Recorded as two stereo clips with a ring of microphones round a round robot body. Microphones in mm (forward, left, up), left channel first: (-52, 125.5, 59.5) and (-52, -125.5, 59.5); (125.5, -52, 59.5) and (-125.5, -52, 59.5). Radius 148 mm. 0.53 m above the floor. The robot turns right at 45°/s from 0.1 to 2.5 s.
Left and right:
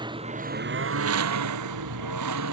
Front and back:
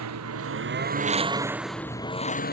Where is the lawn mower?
160° right; by 2.5 s 55° right.